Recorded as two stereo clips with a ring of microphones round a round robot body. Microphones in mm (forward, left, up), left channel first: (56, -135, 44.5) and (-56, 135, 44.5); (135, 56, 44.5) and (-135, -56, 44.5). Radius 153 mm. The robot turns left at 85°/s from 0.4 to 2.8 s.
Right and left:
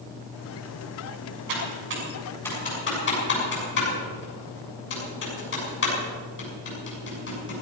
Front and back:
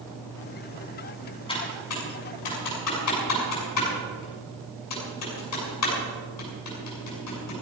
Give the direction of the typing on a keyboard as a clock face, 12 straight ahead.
9 o'clock.